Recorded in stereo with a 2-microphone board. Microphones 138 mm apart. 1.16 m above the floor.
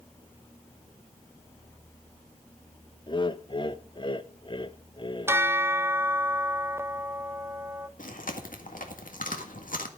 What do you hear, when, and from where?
3.1 s laughter: 35° left (ahead or behind), 0.8 m
5.3 s a bell: 15° right (ahead or behind), 0.6 m
8.0 s chewing: 85° left, 1.7 m